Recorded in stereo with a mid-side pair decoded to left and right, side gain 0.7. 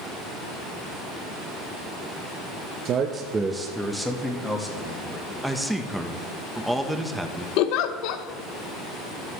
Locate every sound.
2.9 s a man speaking: 50° right, 0.8 m; by 5.3 s 15° left, 2.5 m
5.4 s a man speaking: 5° right, 1.1 m
7.6 s a giggle: 65° left, 0.8 m